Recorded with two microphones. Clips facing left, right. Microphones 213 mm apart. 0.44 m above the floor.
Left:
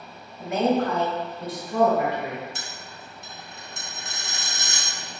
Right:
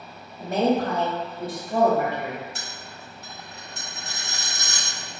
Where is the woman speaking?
30° right (ahead or behind), 1.2 m; by 2.5 s 55° right (ahead or behind), 2 m.